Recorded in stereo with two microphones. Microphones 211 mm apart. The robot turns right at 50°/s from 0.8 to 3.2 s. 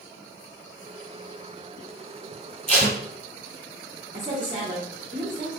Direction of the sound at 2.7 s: 30° right (ahead or behind).